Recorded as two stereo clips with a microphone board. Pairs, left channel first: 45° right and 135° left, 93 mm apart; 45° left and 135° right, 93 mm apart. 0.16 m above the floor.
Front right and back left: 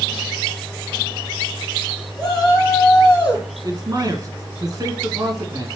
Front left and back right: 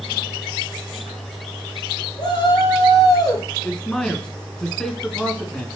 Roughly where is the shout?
Ahead left.